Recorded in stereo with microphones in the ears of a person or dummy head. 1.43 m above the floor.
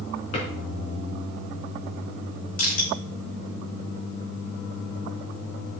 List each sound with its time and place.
0.3 s a drawer: 40° left (ahead or behind), 3.5 m
2.6 s crushing: 45° left (ahead or behind), 5.5 m